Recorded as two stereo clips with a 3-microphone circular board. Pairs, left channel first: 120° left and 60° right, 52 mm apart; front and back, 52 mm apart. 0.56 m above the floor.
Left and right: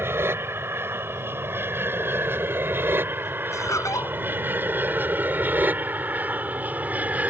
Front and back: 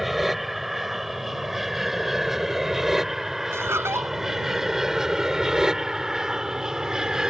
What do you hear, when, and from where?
0.0 s an aircraft: 95° right; by 7.3 s 110° right
3.5 s laughter: 140° left